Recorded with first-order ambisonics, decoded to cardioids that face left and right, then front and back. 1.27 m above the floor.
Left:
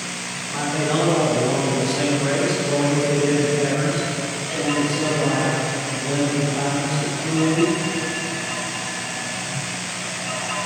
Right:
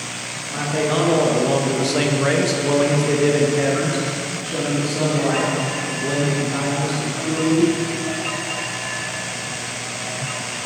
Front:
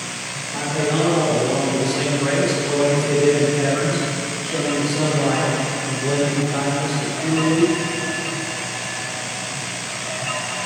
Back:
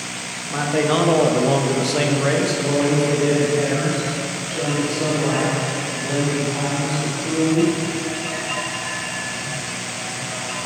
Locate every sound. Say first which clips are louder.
0.5 s a man speaking: right 2 dB, back 3 dB; 175° right, 1.5 m; by 7.7 s 55° right, 4.5 m